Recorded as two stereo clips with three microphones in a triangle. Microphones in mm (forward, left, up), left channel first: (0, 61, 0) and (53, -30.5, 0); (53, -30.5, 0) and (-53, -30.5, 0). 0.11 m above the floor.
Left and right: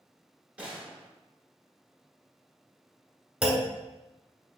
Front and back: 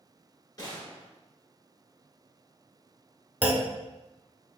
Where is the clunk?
125° right, 0.7 m.